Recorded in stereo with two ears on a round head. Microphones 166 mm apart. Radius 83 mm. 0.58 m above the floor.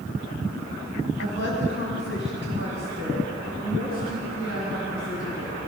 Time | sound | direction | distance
1.2 | a woman speaking | 70° left (ahead or behind) | 5 m